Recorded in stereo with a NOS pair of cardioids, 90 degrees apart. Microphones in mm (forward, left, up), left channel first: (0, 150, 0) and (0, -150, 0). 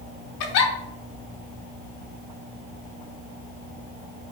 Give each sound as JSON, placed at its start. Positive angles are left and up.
{"t": 0.4, "sound": "a giggle", "azimuth_deg": 60, "distance_m": 0.7}